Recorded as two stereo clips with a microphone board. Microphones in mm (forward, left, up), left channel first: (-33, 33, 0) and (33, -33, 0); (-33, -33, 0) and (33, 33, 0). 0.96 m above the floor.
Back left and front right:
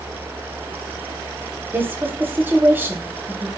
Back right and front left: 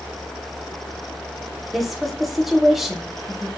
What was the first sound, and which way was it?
A woman speaking, 45° right.